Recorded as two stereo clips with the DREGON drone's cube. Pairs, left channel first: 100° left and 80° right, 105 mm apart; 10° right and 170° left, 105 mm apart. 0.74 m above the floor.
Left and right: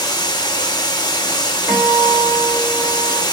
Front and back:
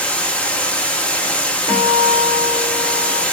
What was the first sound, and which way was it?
Running water, 65° left.